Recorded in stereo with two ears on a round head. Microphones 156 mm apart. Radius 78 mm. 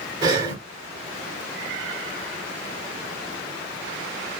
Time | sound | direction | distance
0.2 | breathing | 20° right (ahead or behind) | 1.8 m